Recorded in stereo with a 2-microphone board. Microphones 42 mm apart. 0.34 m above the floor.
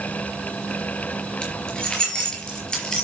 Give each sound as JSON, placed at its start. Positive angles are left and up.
{"t": 1.4, "sound": "keys jangling", "side_deg": 25, "distance_m": 4.0}